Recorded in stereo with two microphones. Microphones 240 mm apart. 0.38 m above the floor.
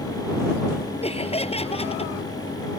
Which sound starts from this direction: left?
Laughter, at 1.0 s.